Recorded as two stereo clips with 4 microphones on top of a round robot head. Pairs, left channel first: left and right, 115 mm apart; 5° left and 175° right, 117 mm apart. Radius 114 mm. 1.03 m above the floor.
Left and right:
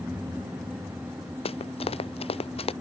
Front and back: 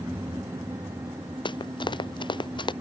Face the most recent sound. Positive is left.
turn(degrees=55)